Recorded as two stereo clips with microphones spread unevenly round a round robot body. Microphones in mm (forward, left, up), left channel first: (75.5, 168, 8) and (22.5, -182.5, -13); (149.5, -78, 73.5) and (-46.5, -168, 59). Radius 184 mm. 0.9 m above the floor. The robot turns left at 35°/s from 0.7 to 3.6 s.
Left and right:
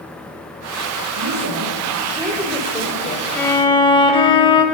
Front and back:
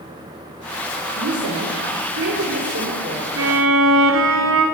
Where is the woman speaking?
140° right, 3 m; by 3.3 s 145° left, 3 m.